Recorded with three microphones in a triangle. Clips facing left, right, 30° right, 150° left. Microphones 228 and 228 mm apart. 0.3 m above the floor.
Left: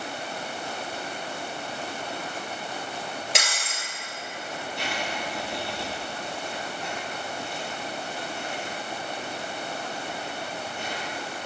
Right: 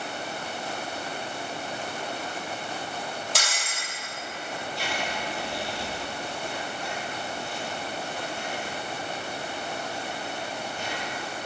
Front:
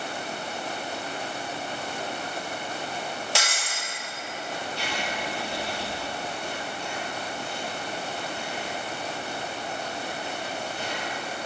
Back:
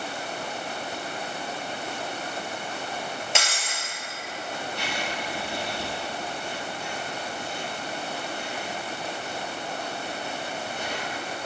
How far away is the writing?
About 2.5 m.